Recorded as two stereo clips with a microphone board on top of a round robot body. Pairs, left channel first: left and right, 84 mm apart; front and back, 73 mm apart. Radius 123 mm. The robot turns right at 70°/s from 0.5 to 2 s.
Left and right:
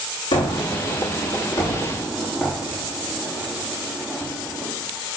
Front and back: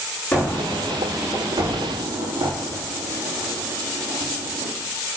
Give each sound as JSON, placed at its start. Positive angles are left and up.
{"t": 0.3, "sound": "a gunshot", "azimuth_deg": 75, "distance_m": 6.0}